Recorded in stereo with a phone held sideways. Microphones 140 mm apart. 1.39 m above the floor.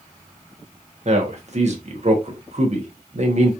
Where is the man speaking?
50° right (ahead or behind), 1.1 m.